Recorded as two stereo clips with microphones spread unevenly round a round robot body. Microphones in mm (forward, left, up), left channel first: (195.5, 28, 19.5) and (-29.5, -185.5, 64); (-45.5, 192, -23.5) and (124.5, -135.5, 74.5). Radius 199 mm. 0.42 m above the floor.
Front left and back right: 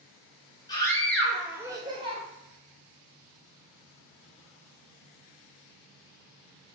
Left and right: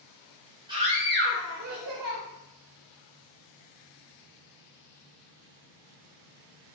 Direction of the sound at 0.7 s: 40° left.